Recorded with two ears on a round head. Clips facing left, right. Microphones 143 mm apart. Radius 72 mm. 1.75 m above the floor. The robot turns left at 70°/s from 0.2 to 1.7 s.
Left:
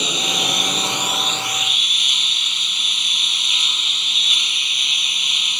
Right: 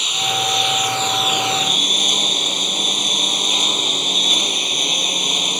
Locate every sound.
0.0 s a lawn mower: 70° left; by 5.6 s 35° right